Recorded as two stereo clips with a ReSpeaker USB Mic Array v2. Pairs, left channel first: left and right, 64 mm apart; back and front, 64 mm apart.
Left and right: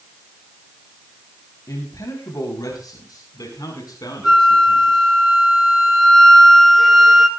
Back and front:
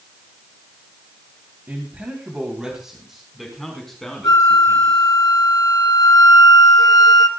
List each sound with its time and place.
1.7 s a man speaking: 60° left, 3.5 m; by 5.2 s 105° left, 7 m
4.2 s a flute: straight behind, 4 m